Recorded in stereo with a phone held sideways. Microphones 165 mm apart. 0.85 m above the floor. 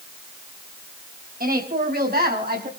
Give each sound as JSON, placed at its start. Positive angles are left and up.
{"t": 1.4, "sound": "a woman speaking", "side_deg": -65, "distance_m": 5.0}